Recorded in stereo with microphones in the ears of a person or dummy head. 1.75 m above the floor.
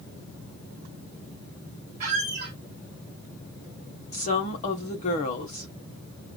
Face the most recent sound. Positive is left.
turn(degrees=45)  # may be behind; listen again after turning